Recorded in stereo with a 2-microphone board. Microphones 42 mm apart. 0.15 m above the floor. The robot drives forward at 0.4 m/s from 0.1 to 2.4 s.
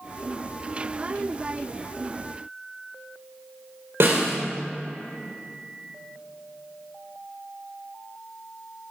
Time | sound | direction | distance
4.0 | a snare drum | 70° right (ahead or behind) | 3 m